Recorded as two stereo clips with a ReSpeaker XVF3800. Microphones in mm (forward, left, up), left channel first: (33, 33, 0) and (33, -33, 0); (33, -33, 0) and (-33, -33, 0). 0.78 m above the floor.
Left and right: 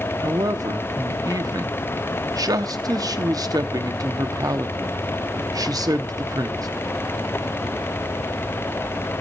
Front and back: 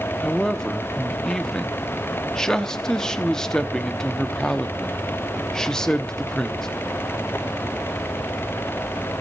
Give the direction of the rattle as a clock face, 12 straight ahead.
I don't hear a rattle.